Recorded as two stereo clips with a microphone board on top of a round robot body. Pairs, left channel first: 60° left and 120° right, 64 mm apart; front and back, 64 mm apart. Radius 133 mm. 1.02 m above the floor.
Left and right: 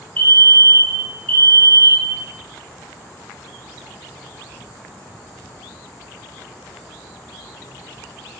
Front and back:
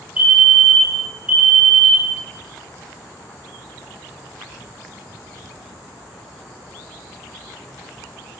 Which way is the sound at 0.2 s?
115° left.